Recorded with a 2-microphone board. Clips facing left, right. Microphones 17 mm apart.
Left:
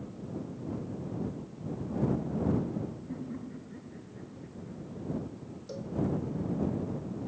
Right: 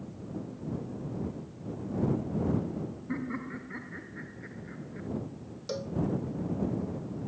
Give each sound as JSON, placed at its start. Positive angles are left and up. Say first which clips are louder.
{"t": 3.1, "sound": "laughter", "louder": "right 4 dB", "side_deg": -55}
{"t": 5.7, "sound": "a cowbell", "louder": "right 5 dB", "side_deg": -40}